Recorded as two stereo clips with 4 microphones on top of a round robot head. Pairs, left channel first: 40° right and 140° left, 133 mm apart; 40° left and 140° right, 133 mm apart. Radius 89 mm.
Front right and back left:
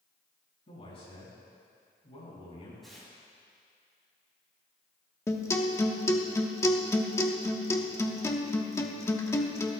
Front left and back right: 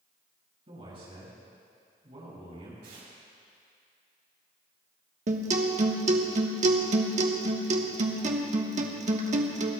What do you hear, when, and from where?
0.7 s a man speaking: 90° right, 6 m
2.8 s tearing paper: 130° right, 5 m
5.3 s a guitar: 110° right, 1.2 m